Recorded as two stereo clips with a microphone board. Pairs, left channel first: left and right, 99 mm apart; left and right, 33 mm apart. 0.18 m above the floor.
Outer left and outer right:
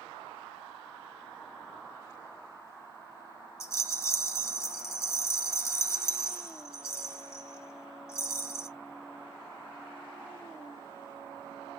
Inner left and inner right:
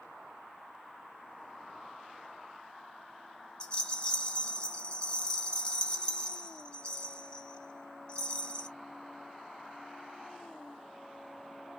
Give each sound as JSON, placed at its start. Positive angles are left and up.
{"t": 3.6, "sound": "a rattle", "side_deg": 30, "distance_m": 0.6}